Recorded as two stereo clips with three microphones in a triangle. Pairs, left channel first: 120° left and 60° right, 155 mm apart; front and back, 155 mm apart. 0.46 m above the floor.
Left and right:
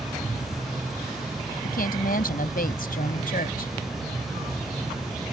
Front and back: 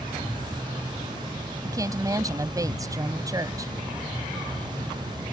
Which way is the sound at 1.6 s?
115° left.